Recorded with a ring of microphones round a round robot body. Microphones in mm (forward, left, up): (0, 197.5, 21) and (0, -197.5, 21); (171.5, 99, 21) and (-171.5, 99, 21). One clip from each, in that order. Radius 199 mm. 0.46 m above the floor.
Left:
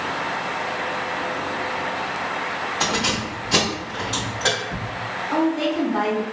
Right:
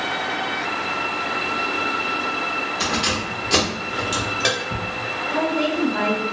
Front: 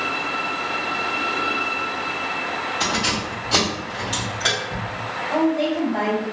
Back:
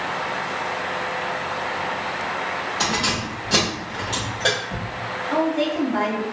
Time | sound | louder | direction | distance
2.8 | keys jangling | left 2 dB, even | 145° right | 1.1 m
5.3 | a woman speaking | left 1 dB, front 1 dB | 165° left | 1.3 m